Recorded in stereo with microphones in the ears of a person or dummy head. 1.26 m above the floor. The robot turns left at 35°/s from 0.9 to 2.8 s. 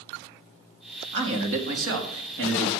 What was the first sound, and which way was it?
A man speaking, 60° right.